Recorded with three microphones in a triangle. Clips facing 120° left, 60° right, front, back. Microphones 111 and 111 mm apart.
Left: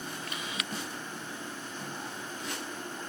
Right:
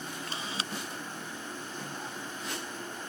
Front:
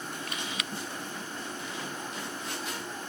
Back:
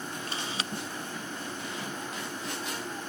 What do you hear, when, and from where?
0.3 s a camera shutter: 120° right